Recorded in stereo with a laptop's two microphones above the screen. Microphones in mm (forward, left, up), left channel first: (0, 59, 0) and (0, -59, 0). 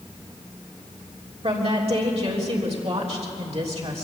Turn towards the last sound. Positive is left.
turn(degrees=-60)  # may be behind; listen again after turning